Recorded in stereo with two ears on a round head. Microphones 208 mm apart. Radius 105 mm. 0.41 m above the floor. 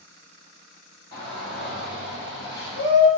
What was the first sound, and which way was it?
A shout, 45° left (ahead or behind).